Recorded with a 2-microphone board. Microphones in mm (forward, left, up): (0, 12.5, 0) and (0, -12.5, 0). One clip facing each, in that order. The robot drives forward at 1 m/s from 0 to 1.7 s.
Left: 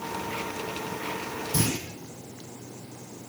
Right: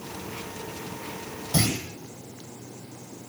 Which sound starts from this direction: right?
A clunk, at 1.5 s.